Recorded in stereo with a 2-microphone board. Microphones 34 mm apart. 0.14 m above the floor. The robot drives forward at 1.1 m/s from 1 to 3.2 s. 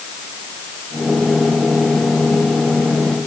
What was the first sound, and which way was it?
Only background noise.